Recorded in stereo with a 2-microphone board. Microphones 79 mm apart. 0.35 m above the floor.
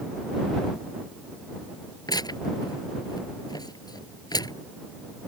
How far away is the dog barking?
I don't hear a dog barking.